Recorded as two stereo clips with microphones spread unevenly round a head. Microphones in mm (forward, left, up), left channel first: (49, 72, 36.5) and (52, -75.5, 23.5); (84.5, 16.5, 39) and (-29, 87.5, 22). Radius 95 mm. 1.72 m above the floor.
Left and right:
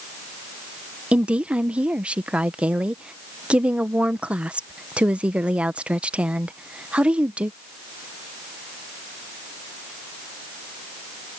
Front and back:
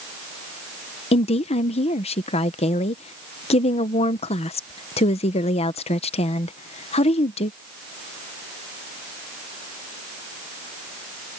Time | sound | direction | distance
1.1 | a woman speaking | 5° right | ?